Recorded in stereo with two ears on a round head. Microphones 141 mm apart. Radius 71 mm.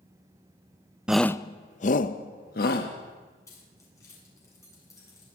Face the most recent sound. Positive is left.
turn(degrees=20)  # may be behind; listen again after turning